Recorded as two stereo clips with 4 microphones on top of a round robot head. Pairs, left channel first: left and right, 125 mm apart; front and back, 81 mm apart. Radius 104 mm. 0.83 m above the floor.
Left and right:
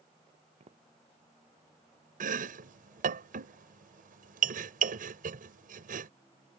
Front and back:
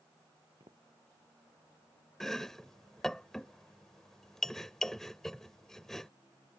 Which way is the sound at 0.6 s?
125° right.